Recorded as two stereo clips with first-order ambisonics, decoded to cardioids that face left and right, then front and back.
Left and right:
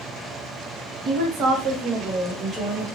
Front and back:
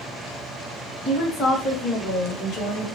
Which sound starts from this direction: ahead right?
A woman speaking, at 1.1 s.